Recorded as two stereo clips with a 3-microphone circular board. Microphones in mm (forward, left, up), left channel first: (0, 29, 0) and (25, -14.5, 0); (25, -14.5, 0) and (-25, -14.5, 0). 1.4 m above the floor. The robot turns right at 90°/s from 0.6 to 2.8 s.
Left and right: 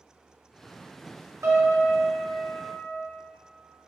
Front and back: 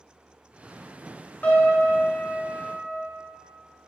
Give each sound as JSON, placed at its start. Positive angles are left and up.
{"t": 1.4, "sound": "a piano", "azimuth_deg": -55, "distance_m": 2.0}